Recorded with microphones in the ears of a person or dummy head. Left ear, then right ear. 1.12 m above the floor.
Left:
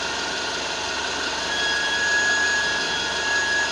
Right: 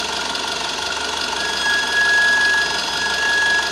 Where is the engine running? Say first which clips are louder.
Right 3 dB; 50° right (ahead or behind), 1.6 m.